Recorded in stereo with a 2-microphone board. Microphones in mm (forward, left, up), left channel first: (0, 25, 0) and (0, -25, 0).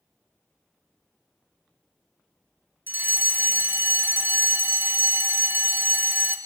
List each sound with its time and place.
2.9 s a fire alarm: 45° right (ahead or behind), 2 m